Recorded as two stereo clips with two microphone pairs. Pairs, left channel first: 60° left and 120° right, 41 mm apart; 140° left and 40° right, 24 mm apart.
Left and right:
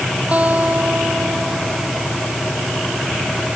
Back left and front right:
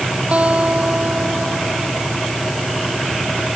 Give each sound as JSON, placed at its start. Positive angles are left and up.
{"t": 0.3, "sound": "a guitar", "azimuth_deg": -65}